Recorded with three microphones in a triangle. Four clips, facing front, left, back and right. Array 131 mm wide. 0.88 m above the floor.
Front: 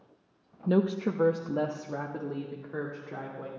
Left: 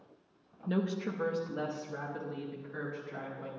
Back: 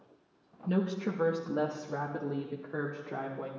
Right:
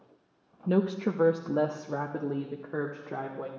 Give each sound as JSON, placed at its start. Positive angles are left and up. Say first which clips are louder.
{"t": 0.7, "sound": "a woman speaking", "louder": "right 6 dB, front 5 dB", "azimuth_deg": -45, "distance_m": 0.6}